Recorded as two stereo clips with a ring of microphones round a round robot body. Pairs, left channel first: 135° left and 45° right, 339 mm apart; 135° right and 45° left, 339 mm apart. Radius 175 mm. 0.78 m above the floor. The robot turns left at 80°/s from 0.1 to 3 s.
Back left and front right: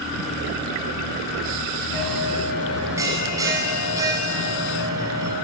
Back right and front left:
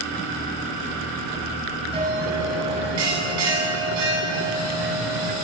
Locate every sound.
1.9 s a bell: 120° left, 8 m; by 5.3 s 35° left, 8 m